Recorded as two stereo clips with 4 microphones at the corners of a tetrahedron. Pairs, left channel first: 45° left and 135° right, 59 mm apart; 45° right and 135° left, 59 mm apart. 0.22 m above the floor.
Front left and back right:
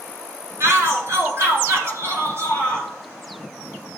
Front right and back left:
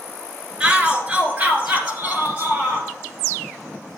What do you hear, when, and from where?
0.6 s a shout: 150° right, 2 m; by 2.9 s 170° right, 3.5 m